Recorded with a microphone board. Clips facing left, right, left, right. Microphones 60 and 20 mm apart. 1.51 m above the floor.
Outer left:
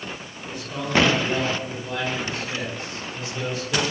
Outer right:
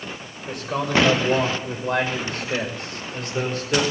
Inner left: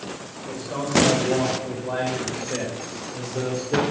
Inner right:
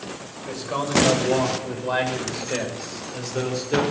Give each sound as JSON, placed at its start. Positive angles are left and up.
{"t": 0.5, "sound": "a man speaking", "side_deg": -70, "distance_m": 6.5}